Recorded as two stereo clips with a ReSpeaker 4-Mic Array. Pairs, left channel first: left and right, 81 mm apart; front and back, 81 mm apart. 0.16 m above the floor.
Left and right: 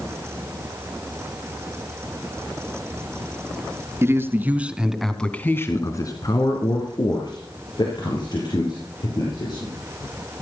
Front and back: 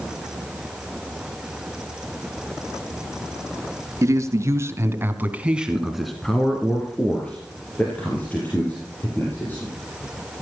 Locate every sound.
4.0 s a man speaking: 140° right, 2 m; by 9.7 s 65° left, 6.5 m